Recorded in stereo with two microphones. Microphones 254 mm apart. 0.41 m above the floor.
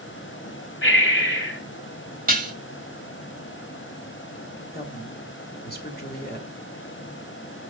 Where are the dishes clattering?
35° right (ahead or behind), 1.6 m.